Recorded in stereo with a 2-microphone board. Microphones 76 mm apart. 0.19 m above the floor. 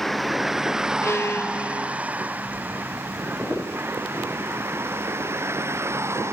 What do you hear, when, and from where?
0.0 s a vehicle: centre (ahead or behind); by 6.3 s 35° right (ahead or behind)
1.0 s a violin: 35° left (ahead or behind)